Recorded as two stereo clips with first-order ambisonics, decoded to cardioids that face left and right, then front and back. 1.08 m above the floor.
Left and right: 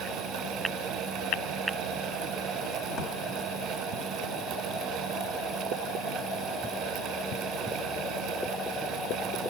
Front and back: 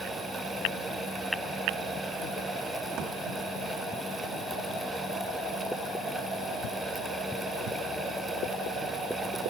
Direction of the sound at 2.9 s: 145° left.